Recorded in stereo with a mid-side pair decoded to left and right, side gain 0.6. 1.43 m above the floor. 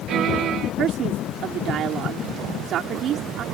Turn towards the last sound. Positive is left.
turn(degrees=-55)